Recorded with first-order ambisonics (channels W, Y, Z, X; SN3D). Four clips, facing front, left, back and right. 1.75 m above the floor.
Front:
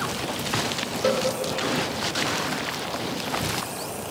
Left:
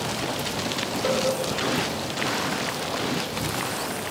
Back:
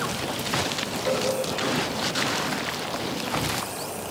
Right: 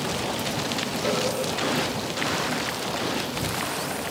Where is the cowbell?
15° left, 4.5 m.